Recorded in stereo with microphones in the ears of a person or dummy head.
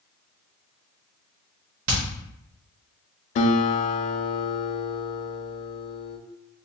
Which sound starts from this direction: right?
Hammering, at 1.9 s.